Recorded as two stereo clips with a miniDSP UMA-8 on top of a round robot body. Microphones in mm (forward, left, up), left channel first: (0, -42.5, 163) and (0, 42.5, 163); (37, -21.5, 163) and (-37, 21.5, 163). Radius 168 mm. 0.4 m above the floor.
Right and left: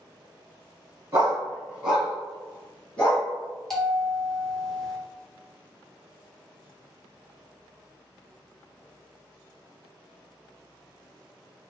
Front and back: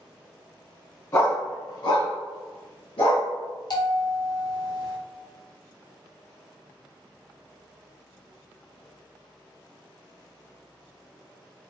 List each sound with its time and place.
1.1 s a dog barking: 30° left, 1.1 m; by 3.3 s 20° right, 1.8 m
3.7 s a bell: 5° right, 1.7 m